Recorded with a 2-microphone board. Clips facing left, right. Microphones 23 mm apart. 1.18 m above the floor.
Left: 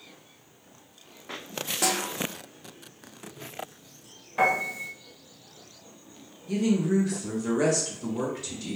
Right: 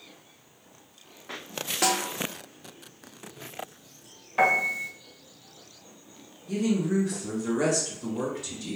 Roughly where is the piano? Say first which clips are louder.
Right 2 dB; centre.